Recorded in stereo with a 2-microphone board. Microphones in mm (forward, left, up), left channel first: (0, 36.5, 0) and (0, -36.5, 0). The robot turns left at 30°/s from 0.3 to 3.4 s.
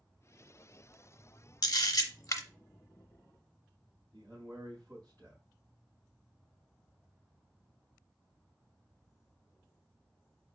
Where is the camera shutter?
65° left (ahead or behind), 0.6 m; by 2.4 s 45° left (ahead or behind), 0.6 m.